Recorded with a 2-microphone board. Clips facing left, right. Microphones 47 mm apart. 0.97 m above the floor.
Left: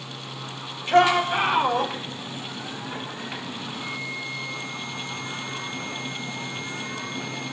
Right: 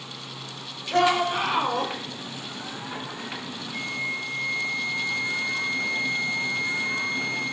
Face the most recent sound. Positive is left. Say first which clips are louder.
# right 5 dB
turn(degrees=-45)  # may be behind; listen again after turning